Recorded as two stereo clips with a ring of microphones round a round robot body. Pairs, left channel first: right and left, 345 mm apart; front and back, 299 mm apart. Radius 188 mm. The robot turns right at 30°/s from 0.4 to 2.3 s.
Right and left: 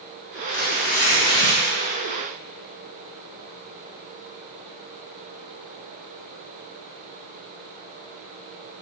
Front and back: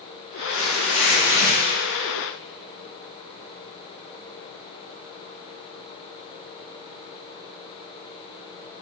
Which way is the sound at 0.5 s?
35° right.